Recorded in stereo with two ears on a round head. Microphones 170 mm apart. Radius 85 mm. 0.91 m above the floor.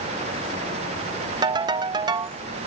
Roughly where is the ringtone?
Right.